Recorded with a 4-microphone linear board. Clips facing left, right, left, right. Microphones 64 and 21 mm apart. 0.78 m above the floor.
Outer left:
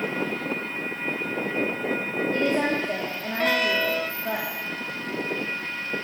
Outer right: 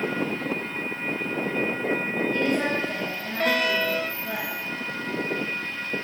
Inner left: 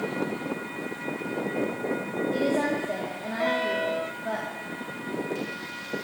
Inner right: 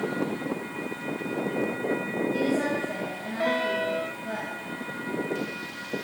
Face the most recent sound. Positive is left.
turn(degrees=50)  # may be behind; listen again after turning